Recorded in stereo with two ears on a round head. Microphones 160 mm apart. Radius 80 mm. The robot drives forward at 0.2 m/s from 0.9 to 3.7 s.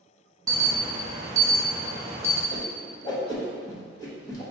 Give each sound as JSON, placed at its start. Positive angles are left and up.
{"t": 0.5, "sound": "an alarm", "side_deg": -20, "distance_m": 0.6}
{"t": 2.5, "sound": "a whoosh", "side_deg": 30, "distance_m": 0.7}